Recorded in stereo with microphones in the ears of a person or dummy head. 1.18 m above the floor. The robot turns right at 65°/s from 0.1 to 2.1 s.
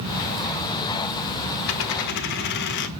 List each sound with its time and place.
1.7 s a dropped coin: 65° left (ahead or behind), 1.4 m; by 2.9 s 55° left (ahead or behind), 1.4 m